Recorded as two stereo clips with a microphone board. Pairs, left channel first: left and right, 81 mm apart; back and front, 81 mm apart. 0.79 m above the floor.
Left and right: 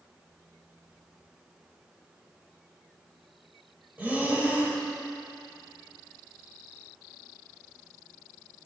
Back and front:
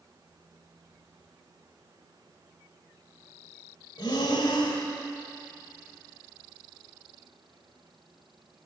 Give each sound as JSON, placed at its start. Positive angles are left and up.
{"t": 4.0, "sound": "breathing", "azimuth_deg": -160, "distance_m": 1.7}